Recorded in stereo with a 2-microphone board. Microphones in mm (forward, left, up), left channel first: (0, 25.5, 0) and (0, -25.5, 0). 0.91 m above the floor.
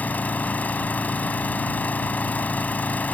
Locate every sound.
0.0 s an engine running: 30° left (ahead or behind)